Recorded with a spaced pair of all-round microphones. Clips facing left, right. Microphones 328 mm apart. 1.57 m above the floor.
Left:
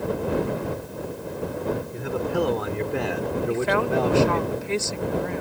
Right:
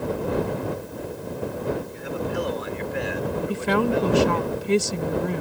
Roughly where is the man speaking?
Left.